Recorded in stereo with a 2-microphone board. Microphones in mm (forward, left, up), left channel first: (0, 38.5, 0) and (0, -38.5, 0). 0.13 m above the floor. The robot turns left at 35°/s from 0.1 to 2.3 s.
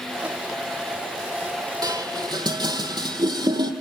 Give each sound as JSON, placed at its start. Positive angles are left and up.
{"t": 1.8, "sound": "dishes clattering", "side_deg": -55, "distance_m": 3.5}